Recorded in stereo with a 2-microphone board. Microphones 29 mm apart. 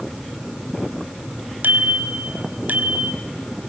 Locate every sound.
1.6 s a bicycle bell: 85° right, 3 m; by 3.1 s 60° right (ahead or behind), 4 m